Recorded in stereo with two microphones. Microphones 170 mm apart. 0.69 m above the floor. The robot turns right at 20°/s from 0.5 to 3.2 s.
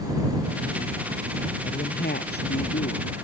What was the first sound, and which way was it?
A woman speaking, 60° left (ahead or behind).